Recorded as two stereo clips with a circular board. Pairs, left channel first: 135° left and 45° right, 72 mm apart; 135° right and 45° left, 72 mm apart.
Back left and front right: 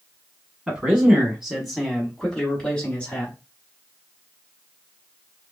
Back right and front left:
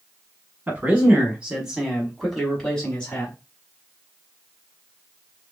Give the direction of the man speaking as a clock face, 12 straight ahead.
12 o'clock.